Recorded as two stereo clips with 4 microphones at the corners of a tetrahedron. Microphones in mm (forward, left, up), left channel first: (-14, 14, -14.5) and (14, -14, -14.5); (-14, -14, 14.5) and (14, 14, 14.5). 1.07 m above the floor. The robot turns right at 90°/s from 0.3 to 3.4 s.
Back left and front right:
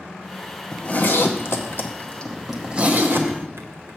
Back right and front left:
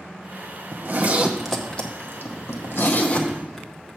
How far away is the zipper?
About 0.9 m.